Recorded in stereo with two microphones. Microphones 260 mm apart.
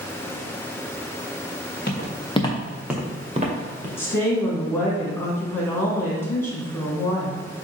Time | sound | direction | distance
1.9 | footsteps | 40° left (ahead or behind) | 1.4 m
4.0 | a woman speaking | 10° left (ahead or behind) | 1.7 m